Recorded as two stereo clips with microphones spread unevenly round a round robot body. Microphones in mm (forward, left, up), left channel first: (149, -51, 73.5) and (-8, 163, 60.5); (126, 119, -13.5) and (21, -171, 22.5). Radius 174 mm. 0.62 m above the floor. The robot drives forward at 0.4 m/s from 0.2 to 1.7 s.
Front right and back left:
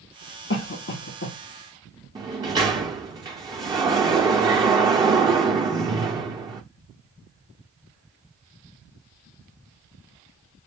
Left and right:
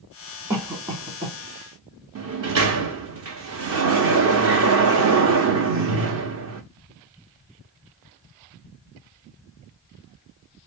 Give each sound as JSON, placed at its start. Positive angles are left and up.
{"t": 0.5, "sound": "a cough", "azimuth_deg": -30, "distance_m": 1.8}
{"t": 2.1, "sound": "a sliding door", "azimuth_deg": -160, "distance_m": 0.7}